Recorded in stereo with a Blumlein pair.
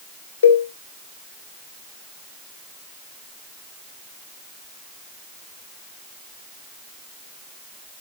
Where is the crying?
I don't hear crying.